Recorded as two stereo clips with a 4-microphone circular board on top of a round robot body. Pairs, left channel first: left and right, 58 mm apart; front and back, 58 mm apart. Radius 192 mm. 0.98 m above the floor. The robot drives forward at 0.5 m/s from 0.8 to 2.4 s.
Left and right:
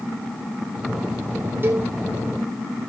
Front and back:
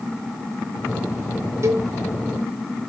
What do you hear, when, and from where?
1.6 s a cowbell: 140° right, 1.1 m; by 1.9 s 145° right, 1.2 m